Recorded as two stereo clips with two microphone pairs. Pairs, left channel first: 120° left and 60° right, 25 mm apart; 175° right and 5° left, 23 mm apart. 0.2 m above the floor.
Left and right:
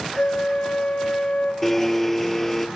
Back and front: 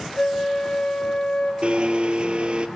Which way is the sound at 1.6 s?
45° left.